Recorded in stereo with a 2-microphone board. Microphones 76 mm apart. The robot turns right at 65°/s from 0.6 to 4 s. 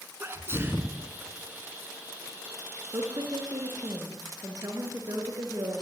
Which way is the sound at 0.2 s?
30° right (ahead or behind).